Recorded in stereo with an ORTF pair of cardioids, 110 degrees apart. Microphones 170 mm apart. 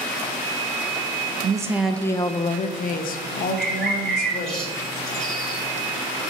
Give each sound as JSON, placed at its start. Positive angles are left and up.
{"t": 1.4, "sound": "a woman speaking", "azimuth_deg": -30, "distance_m": 0.8}
{"t": 3.6, "sound": "a bird", "azimuth_deg": 5, "distance_m": 3.5}